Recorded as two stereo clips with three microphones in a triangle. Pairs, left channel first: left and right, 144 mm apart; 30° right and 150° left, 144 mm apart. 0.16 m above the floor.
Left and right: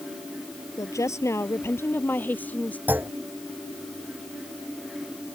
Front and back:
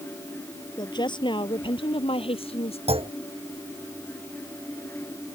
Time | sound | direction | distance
0.8 | a woman speaking | 25° left | ?
2.9 | a clunk | 165° right | ?